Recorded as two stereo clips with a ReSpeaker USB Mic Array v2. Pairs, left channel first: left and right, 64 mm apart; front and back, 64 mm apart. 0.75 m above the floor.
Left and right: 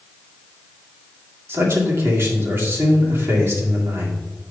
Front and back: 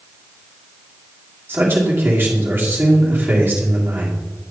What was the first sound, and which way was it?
A man speaking, 130° right.